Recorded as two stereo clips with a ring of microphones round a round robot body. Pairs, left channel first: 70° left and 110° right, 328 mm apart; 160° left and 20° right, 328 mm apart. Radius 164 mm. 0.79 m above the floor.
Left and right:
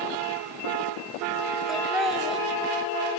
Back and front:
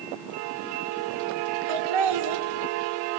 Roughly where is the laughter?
Ahead right.